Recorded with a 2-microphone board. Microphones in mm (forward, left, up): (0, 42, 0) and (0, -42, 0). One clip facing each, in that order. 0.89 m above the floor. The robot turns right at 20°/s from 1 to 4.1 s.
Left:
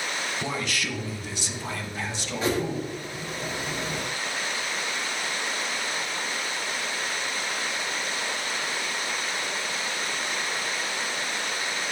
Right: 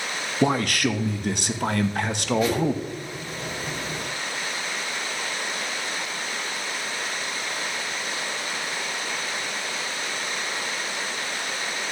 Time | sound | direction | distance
0.4 | a man speaking | 110° right | 0.6 m
2.4 | a whoosh | 30° left (ahead or behind) | 1.2 m